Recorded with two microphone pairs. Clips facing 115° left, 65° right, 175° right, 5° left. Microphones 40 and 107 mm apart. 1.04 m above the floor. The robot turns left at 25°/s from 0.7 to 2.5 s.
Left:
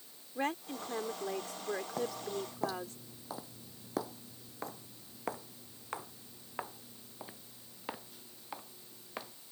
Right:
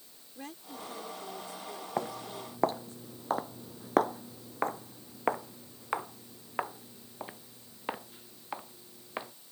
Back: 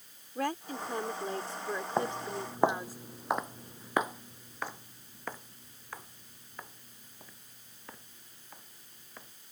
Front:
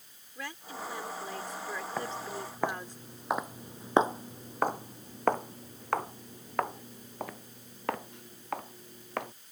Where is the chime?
No chime in this recording.